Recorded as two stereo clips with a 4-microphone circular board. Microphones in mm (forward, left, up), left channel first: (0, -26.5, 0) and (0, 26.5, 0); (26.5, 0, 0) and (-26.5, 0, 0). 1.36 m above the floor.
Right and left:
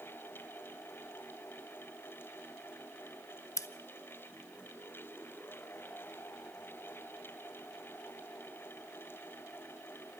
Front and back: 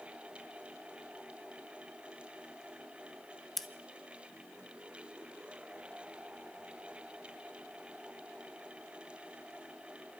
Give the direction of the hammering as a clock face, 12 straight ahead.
I don't hear hammering.